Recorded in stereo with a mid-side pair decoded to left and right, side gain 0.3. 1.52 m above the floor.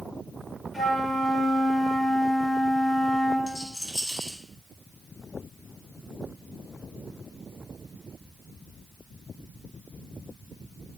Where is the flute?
35° left, 3 m.